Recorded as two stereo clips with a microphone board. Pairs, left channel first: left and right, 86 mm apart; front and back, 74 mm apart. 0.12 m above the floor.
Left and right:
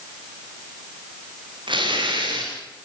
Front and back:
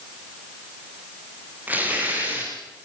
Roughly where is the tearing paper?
Right.